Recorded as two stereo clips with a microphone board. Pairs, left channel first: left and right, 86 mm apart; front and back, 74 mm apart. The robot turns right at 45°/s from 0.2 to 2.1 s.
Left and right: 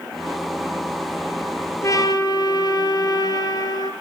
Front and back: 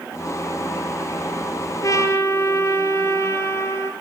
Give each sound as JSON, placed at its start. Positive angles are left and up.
{"t": 1.8, "sound": "a trumpet", "azimuth_deg": 40, "distance_m": 2.0}